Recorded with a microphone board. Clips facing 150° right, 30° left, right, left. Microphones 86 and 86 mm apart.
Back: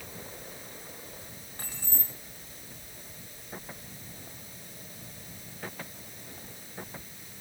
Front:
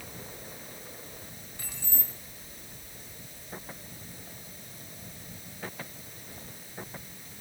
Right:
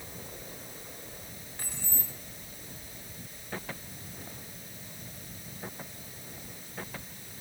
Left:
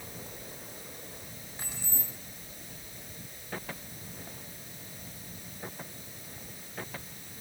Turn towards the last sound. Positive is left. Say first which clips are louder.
# back 1 dB, even
turn(degrees=170)